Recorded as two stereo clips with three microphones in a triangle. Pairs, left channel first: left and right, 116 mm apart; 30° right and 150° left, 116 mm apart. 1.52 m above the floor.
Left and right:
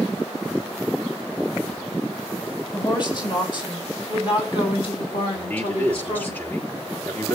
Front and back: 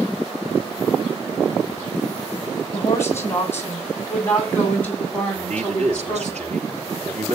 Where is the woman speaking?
40° left, 8.5 m; by 6.3 s 55° left, 10 m.